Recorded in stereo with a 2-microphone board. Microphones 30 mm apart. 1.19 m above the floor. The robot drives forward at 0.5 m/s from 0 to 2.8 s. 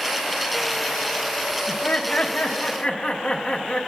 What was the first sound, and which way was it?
Laughter, 55° left (ahead or behind).